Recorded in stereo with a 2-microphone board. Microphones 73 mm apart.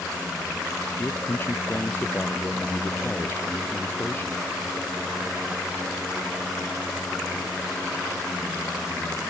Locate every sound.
1.0 s a man speaking: 30° left (ahead or behind)